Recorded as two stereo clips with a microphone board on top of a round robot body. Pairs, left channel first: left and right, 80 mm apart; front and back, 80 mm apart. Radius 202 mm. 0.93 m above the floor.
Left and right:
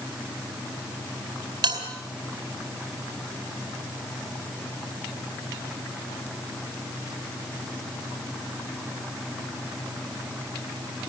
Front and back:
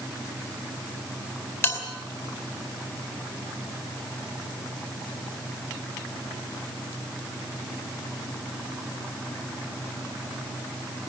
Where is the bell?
60° right, 4 m.